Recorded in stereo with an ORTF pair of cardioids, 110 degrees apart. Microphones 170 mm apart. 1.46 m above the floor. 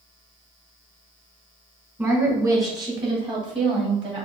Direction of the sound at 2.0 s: 15° right.